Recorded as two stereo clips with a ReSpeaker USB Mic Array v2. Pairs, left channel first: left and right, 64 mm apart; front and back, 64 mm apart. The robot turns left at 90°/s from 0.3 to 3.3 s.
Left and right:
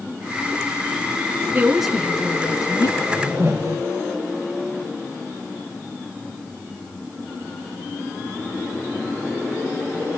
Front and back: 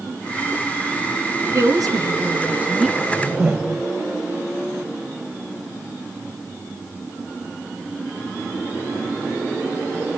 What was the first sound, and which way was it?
A woman speaking, 150° right.